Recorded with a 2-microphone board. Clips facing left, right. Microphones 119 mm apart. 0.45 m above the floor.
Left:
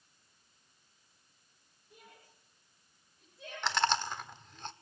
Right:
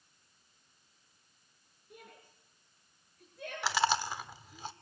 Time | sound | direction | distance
1.9 | a shout | 65° right (ahead or behind) | 5.5 m
3.6 | chewing | 5° right (ahead or behind) | 1.2 m